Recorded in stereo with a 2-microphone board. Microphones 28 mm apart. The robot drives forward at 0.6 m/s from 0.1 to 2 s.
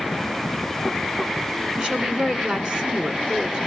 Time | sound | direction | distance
1.8 | a woman speaking | 30° right (ahead or behind) | 1.2 m